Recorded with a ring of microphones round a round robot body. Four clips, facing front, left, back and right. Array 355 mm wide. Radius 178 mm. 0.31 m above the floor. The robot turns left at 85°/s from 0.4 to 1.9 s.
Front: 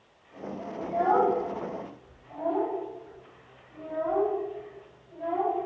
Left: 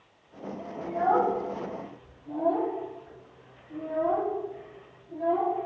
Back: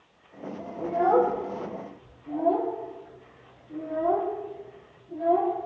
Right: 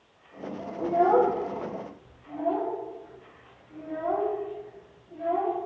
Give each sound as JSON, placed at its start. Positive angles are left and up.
{"t": 0.8, "sound": "a child speaking", "azimuth_deg": -105, "distance_m": 6.5}